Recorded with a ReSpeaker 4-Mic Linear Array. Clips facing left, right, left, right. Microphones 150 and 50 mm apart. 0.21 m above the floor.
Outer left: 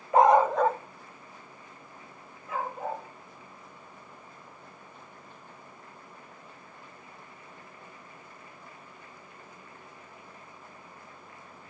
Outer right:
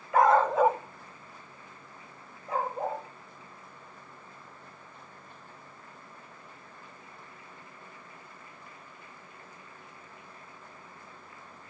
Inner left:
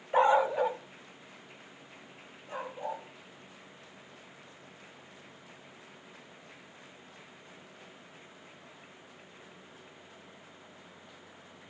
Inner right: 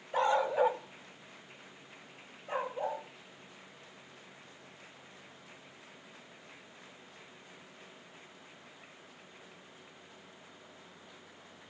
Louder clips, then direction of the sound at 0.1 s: Outer left 2 dB, inner left 4 dB; 25° left (ahead or behind).